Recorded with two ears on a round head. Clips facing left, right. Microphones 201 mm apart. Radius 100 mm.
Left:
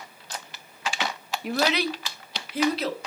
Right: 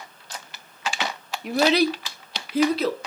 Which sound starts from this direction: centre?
A child speaking, at 1.4 s.